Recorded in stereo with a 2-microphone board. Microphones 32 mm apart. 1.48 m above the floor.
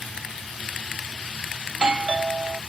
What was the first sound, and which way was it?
A doorbell, 35° right (ahead or behind).